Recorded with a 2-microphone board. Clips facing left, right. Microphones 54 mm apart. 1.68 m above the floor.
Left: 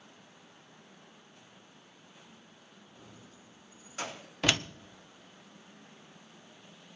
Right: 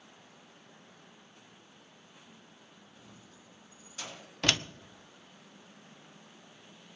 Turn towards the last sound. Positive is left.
turn(degrees=10)  # may be behind; listen again after turning